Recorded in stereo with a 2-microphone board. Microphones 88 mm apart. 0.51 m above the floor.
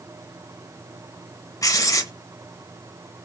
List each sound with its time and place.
1.6 s writing: 40° left (ahead or behind), 0.8 m